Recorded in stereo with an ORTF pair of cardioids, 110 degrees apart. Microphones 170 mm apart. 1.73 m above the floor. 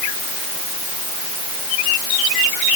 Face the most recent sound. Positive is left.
No sound to turn to.